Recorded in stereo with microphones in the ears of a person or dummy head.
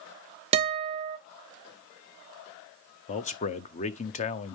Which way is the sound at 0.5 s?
35° right (ahead or behind).